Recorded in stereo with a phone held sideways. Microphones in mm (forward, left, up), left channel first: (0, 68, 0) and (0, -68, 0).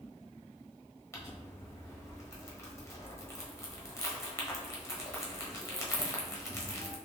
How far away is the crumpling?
About 0.8 m.